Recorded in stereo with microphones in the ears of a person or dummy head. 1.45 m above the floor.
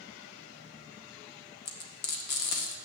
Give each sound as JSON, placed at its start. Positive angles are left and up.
{"t": 1.6, "sound": "frying", "side_deg": 55, "distance_m": 1.5}